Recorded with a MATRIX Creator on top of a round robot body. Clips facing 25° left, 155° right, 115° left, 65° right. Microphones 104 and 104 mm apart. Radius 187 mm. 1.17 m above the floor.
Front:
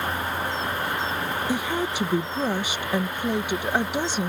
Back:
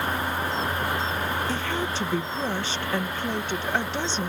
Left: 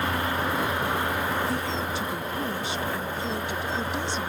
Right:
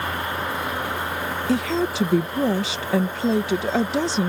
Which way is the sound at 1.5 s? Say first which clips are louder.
Front 2 dB, right 7 dB; 55° right.